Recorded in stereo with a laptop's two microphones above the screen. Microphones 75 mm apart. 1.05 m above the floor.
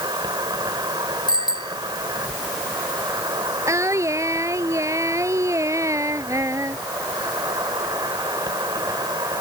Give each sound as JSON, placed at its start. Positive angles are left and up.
{"t": 0.0, "sound": "an insect", "side_deg": -70}
{"t": 1.3, "sound": "a bicycle bell", "side_deg": 70}
{"t": 3.7, "sound": "singing", "side_deg": -40}